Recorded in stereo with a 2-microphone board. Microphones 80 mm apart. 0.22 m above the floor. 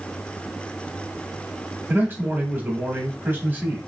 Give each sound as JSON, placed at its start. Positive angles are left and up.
{"t": 1.9, "sound": "a man speaking", "side_deg": -25, "distance_m": 1.0}